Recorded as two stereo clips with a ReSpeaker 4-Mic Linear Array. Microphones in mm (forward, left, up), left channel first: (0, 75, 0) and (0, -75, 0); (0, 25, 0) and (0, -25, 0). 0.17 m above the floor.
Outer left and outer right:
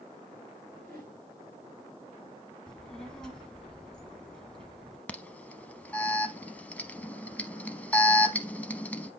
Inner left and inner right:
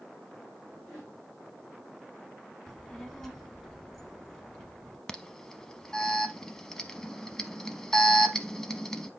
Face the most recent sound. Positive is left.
turn(degrees=10)  # may be behind; listen again after turning